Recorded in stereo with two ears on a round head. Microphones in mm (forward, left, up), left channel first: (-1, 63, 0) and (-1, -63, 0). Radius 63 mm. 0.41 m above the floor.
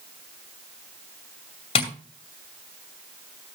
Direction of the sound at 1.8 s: 40° left (ahead or behind).